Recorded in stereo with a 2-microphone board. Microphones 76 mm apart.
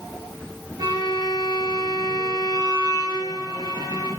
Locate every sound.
0.8 s a violin: 50° right (ahead or behind), 8.5 m